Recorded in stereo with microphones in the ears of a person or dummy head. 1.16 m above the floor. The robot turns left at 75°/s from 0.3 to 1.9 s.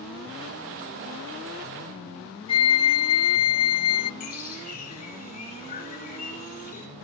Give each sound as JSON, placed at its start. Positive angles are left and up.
{"t": 2.5, "sound": "a flute", "side_deg": 25, "distance_m": 0.6}
{"t": 4.2, "sound": "a bird", "side_deg": 45, "distance_m": 3.0}